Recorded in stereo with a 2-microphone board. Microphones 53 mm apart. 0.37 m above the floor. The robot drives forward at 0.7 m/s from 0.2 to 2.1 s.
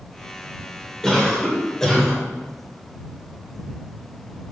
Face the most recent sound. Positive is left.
turn(degrees=10)  # may be behind; listen again after turning